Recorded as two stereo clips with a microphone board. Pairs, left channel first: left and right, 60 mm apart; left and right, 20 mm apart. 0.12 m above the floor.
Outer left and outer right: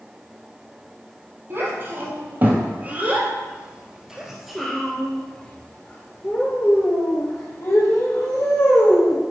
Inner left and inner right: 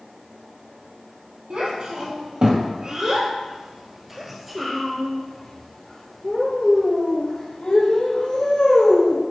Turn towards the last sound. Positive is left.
turn(degrees=65)  # may be behind; listen again after turning